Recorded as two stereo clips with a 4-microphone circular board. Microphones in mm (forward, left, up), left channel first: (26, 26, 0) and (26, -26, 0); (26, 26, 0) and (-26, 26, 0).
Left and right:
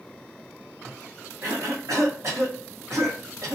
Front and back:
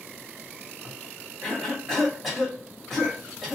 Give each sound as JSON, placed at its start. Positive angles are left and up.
{"t": 1.4, "sound": "a cough", "azimuth_deg": -90, "distance_m": 1.4}